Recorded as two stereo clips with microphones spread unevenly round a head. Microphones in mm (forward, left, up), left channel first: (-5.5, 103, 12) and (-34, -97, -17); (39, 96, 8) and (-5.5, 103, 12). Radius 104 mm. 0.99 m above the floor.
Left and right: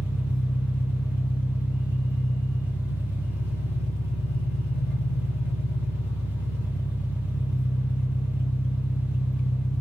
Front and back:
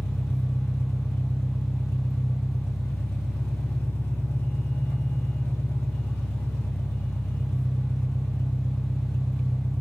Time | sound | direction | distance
0.0 | an engine running | straight ahead | 1.7 m